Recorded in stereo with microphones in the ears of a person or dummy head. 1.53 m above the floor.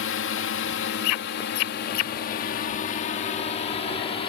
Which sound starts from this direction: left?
A drone, at 0.0 s.